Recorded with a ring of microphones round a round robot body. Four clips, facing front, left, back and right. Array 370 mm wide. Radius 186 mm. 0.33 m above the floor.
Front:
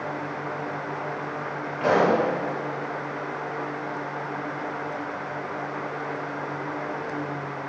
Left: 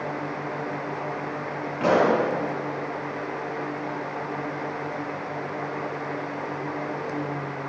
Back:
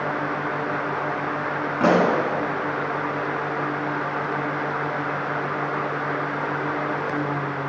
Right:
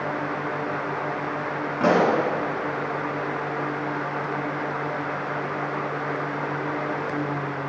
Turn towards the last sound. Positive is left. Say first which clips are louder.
# even, back 2 dB
turn(degrees=-160)